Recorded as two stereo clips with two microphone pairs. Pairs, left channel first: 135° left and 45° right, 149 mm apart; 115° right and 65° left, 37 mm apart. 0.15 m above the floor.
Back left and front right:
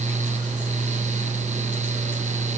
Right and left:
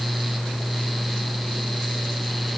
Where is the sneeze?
No sneeze in this recording.